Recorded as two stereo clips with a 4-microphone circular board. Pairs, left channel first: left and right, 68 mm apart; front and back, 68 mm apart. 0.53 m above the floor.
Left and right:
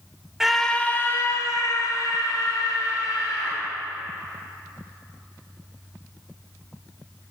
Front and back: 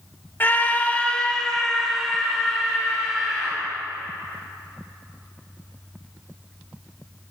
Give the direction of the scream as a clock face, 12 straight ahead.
12 o'clock.